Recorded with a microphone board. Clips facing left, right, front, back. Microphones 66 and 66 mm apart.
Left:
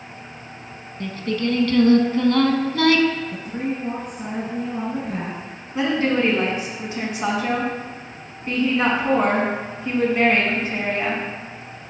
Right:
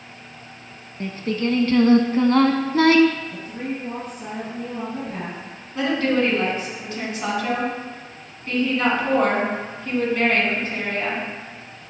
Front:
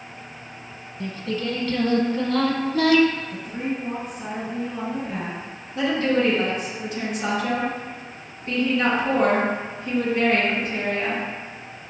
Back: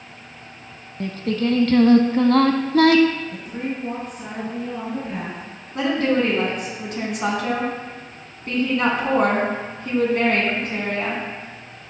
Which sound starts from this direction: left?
A woman speaking, at 3.3 s.